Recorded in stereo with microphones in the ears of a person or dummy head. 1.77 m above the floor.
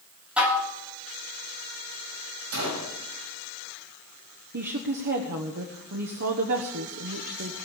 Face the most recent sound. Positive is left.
turn(degrees=-50)  # may be behind; listen again after turning